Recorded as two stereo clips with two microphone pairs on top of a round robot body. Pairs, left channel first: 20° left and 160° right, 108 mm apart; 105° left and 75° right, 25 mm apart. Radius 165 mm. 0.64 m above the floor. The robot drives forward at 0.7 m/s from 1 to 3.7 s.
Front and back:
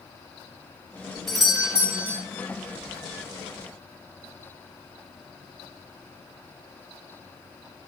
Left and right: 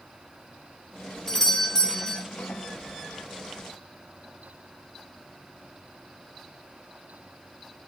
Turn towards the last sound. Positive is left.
turn(degrees=160)